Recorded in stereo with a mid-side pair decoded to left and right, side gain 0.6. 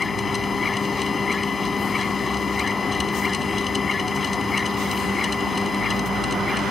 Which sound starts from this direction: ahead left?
A machine running, at 0.0 s.